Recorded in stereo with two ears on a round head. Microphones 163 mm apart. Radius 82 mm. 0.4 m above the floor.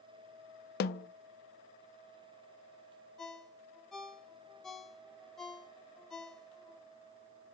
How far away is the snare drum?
About 0.5 m.